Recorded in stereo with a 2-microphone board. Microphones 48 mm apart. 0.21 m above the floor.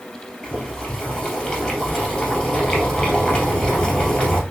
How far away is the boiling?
About 1.9 m.